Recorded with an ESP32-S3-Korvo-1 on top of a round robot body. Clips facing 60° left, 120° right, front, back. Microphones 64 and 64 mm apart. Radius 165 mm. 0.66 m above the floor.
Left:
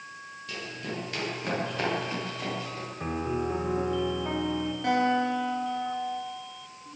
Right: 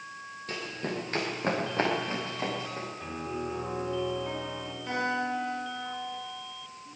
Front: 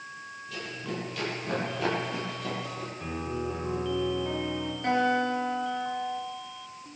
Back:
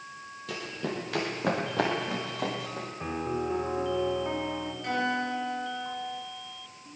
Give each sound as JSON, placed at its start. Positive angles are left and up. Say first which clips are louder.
{"t": 0.5, "sound": "running footsteps", "louder": "right 2 dB, back 3 dB", "azimuth_deg": -170, "distance_m": 7.5}
{"t": 3.0, "sound": "a piano", "louder": "left 8 dB, back 3 dB", "azimuth_deg": 115, "distance_m": 2.5}
{"t": 4.8, "sound": "a guitar", "louder": "left 5 dB, front 4 dB", "azimuth_deg": 55, "distance_m": 8.5}